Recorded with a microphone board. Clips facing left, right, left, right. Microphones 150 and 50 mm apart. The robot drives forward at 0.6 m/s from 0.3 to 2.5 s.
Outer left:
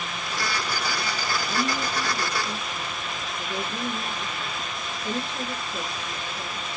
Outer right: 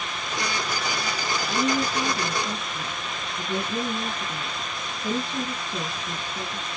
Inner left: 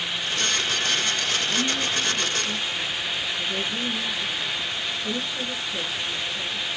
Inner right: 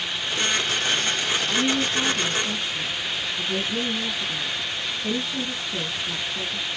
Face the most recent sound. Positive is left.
turn(degrees=-60)  # may be behind; listen again after turning